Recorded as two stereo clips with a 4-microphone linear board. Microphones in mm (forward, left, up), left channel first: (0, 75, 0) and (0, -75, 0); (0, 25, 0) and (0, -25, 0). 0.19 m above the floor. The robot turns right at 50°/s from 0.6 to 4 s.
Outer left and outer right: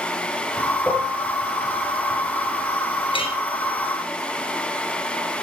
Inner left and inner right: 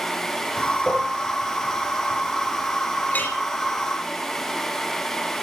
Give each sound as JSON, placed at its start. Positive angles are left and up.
{"t": 0.9, "sound": "dishes clattering", "side_deg": -5, "distance_m": 4.0}
{"t": 3.1, "sound": "a clink", "side_deg": 30, "distance_m": 2.5}